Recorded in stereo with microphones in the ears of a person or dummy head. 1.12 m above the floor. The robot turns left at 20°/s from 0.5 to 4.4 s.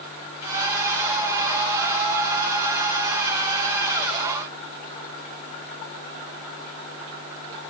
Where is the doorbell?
I don't hear a doorbell.